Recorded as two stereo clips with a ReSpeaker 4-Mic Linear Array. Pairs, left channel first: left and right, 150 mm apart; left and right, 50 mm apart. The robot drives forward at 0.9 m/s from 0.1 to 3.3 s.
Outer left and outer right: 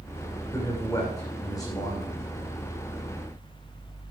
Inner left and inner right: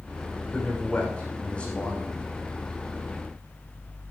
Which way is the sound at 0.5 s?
20° left (ahead or behind).